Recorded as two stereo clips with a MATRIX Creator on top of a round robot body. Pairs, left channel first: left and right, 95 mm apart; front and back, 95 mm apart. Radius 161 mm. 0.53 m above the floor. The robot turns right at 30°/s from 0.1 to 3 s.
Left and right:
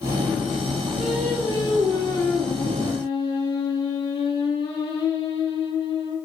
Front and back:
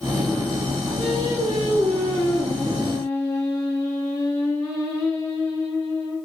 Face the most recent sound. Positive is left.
turn(degrees=60)